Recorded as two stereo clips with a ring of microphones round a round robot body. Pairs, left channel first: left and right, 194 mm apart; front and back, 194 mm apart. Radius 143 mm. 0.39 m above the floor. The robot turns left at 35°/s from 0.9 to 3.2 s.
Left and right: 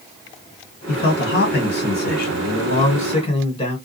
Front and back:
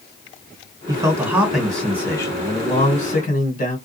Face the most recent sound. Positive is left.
turn(degrees=35)